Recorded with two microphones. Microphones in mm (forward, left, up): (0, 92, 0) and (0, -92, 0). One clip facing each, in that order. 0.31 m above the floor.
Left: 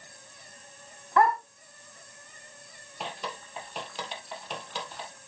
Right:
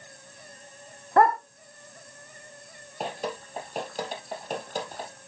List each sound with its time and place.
1.2 s a dog barking: 45° right (ahead or behind), 0.7 m
3.0 s dripping: 45° right (ahead or behind), 1.9 m